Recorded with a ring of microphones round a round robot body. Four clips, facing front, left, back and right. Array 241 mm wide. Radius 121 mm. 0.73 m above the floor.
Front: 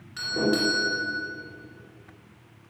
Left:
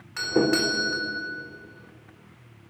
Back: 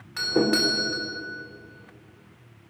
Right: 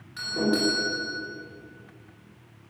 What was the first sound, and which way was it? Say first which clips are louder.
A doorbell: left 3 dB, back 2 dB; 130° left.